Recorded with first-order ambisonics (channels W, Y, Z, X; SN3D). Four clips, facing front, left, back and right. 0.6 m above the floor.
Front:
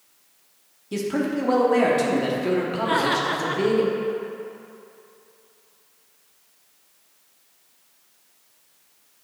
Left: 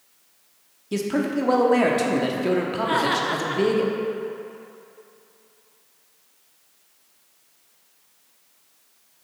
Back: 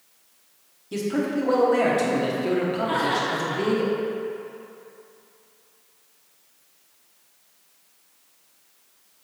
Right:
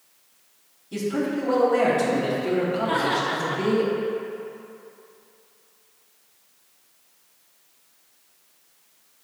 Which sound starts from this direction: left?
A man speaking, at 0.9 s.